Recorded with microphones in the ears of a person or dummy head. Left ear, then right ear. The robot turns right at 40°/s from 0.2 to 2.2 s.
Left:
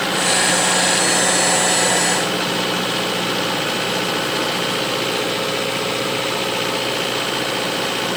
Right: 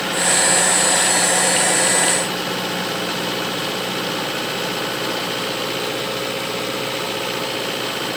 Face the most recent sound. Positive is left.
No sound to turn to.